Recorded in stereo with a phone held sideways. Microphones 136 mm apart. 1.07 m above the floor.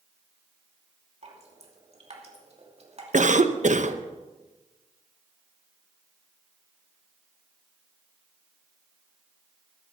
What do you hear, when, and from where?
1.2 s dripping: 50° right (ahead or behind), 2.5 m
3.1 s a cough: 65° right (ahead or behind), 1.0 m